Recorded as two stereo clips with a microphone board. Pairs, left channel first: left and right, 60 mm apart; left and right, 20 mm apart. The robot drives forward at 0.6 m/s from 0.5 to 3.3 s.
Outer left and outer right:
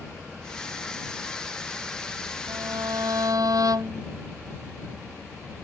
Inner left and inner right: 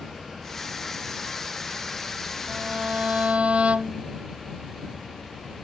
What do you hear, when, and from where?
2.5 s a violin: 90° right; by 4.0 s 85° right